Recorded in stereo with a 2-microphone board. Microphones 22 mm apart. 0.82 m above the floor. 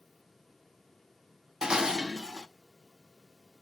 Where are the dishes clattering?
25° right (ahead or behind), 0.7 m.